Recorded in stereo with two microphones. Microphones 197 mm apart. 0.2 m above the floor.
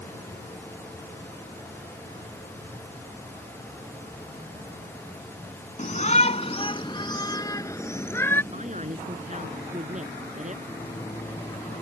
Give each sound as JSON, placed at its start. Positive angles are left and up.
{"t": 5.8, "sound": "a shout", "side_deg": 40}
{"t": 8.5, "sound": "a man speaking", "side_deg": -40}
{"t": 10.7, "sound": "a microwave", "side_deg": 25}